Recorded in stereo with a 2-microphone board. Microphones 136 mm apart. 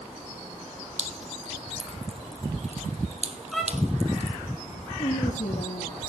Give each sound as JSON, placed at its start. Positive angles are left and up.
{"t": 1.0, "sound": "dripping", "side_deg": -50, "distance_m": 1.6}
{"t": 3.5, "sound": "a violin", "side_deg": 0, "distance_m": 4.5}
{"t": 5.0, "sound": "a woman speaking", "side_deg": 65, "distance_m": 3.5}